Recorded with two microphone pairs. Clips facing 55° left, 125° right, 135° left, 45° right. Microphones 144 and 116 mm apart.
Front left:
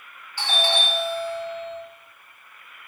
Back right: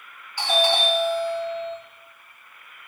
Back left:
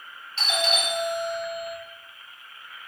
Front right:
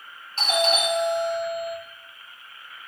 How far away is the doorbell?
About 1.7 m.